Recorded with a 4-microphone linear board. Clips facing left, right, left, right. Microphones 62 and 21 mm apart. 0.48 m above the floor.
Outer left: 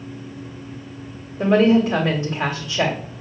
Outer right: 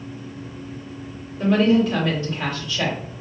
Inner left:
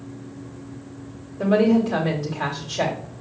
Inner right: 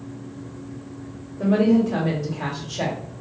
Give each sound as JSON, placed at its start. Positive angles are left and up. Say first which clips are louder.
{"t": 1.4, "sound": "a woman speaking", "louder": "outer left 2 dB, even", "side_deg": 35, "distance_m": 1.7}